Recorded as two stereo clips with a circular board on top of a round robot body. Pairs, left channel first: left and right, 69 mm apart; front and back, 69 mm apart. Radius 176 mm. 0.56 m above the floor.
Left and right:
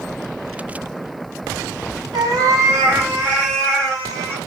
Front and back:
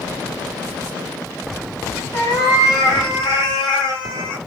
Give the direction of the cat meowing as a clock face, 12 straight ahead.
2 o'clock.